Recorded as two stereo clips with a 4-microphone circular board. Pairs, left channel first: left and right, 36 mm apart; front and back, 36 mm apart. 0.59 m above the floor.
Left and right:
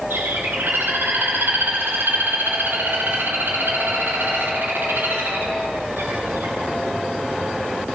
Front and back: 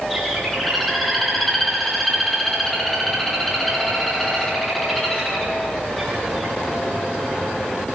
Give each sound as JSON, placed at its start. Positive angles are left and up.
{"t": 0.1, "sound": "a bird", "azimuth_deg": -90, "distance_m": 9.5}